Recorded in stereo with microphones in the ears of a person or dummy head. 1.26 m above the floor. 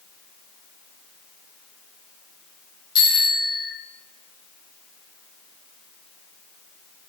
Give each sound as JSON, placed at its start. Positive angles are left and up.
{"t": 3.0, "sound": "a bicycle bell", "side_deg": 15, "distance_m": 5.0}